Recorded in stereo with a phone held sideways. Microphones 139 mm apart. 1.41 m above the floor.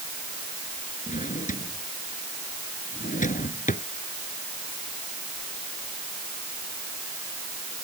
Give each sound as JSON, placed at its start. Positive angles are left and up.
{"t": 1.1, "sound": "a drawer", "side_deg": 70}